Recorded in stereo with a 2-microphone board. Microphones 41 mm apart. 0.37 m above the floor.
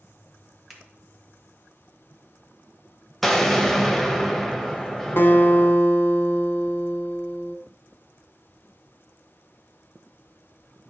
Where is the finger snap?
5° right (ahead or behind), 1.7 m.